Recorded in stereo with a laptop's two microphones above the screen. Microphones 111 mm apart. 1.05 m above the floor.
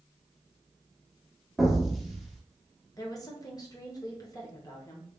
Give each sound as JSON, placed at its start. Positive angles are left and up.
{"t": 1.6, "sound": "an explosion", "side_deg": 0, "distance_m": 0.9}
{"t": 3.0, "sound": "a woman speaking", "side_deg": 35, "distance_m": 0.7}